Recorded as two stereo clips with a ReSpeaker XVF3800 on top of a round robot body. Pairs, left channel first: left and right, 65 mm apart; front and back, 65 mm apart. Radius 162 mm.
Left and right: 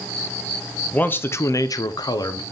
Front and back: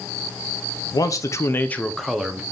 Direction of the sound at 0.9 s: 25° left.